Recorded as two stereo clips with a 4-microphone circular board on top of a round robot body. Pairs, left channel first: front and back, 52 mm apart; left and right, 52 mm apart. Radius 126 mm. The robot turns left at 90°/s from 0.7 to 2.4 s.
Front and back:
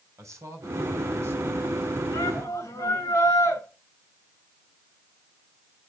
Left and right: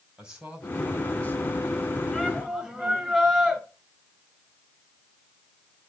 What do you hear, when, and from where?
0.2 s a man speaking: 160° right, 5 m; by 2.0 s 75° left, 5 m
2.1 s a shout: 20° left, 6 m; by 3.6 s 5° right, 6 m